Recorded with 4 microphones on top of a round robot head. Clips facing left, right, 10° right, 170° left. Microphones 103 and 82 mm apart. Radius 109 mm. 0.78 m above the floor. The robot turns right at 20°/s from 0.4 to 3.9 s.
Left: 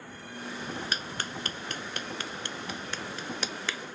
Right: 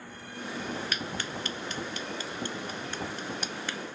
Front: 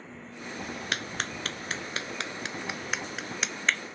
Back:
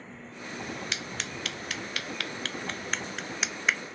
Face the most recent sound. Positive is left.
turn(degrees=90)